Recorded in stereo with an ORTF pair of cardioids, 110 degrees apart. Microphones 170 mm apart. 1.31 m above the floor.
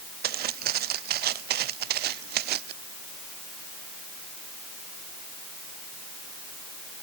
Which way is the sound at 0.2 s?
70° right.